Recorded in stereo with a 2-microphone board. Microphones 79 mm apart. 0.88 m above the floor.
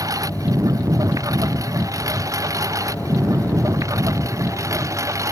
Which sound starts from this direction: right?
A lawn mower, at 0.0 s.